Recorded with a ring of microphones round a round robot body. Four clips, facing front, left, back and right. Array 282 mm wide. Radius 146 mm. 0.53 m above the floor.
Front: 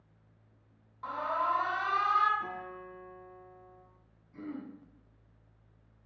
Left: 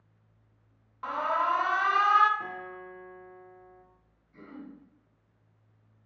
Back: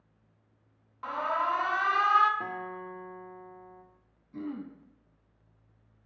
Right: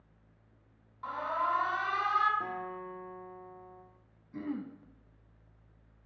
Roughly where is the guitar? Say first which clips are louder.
Right 1 dB, back 3 dB; behind.